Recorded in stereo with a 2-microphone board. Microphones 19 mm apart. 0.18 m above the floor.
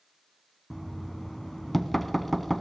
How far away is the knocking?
About 1.0 m.